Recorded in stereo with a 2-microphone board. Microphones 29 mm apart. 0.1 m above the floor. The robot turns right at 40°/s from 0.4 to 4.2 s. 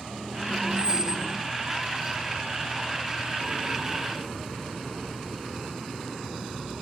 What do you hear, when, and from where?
0.8 s a squeak: 35° left (ahead or behind), 1.3 m; by 1.3 s 10° left (ahead or behind), 1.3 m